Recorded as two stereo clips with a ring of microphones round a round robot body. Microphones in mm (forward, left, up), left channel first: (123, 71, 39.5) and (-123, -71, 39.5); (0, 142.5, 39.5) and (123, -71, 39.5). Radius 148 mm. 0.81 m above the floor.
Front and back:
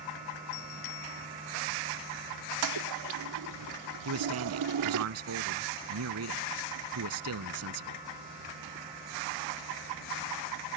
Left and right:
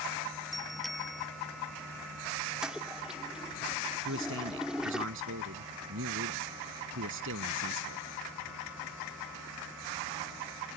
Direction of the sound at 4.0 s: 110° right.